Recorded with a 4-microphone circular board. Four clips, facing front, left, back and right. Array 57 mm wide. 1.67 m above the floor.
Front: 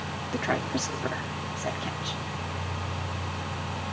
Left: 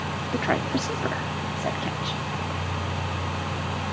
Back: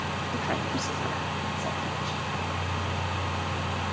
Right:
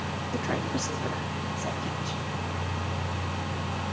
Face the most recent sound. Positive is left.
turn(degrees=75)